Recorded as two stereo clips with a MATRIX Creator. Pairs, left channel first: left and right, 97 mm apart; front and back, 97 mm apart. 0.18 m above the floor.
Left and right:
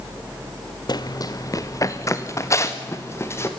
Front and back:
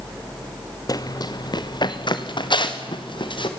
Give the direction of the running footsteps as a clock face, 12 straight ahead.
10 o'clock.